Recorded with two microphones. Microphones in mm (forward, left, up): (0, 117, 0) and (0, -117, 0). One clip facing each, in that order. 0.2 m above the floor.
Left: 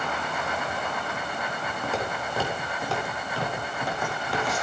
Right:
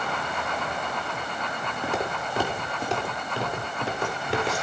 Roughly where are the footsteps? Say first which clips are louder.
Right 1 dB; centre.